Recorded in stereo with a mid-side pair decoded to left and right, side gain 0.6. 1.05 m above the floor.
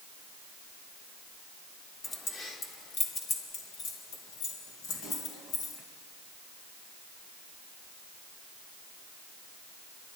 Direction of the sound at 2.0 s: 30° left.